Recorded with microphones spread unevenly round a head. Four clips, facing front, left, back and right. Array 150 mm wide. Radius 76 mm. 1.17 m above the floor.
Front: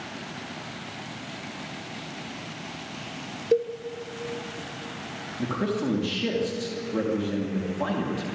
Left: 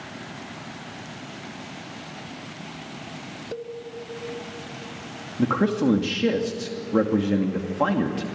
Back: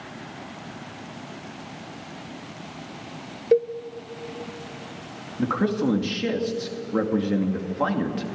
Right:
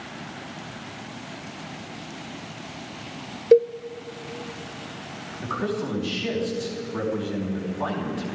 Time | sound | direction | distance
3.5 | a cowbell | 105° right | 0.8 m
5.4 | a man speaking | 120° left | 2.5 m